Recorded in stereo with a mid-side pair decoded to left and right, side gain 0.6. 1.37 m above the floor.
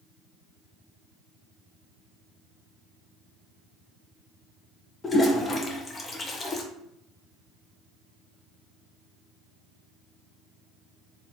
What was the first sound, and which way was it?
A toilet flushing, 30° left.